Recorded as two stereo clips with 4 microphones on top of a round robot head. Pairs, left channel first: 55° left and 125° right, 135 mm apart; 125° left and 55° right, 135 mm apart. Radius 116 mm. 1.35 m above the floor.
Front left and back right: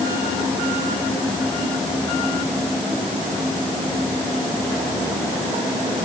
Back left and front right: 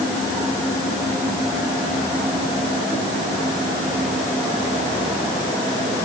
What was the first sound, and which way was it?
Only background noise.